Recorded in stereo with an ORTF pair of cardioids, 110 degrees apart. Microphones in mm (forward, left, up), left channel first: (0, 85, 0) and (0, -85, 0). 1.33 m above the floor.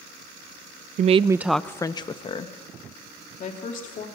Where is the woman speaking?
50° right, 0.7 m; by 4.1 s 50° left, 3 m.